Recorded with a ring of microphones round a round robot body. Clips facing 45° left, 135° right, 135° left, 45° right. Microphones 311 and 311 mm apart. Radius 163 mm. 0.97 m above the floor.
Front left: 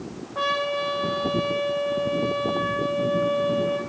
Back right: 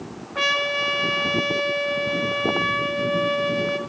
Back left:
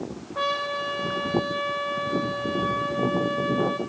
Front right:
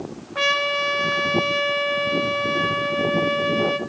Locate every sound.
0.3 s a trumpet: 90° right, 3.5 m